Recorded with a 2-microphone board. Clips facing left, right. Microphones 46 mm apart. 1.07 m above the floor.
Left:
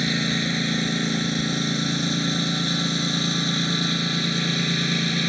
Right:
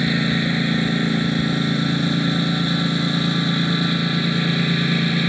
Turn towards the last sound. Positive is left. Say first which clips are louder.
# right 4 dB
turn(degrees=-15)  # may be behind; listen again after turning